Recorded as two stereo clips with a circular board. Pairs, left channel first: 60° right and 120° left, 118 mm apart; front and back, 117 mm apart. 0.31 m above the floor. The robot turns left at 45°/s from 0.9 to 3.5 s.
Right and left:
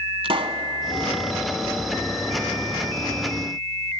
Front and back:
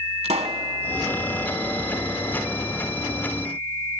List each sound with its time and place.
0.2 s a pop: 155° left, 0.9 m